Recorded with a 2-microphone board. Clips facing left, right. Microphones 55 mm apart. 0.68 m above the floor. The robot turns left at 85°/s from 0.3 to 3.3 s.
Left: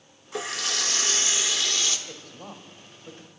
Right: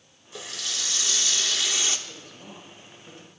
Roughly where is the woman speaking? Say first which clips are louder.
Left 2 dB; left.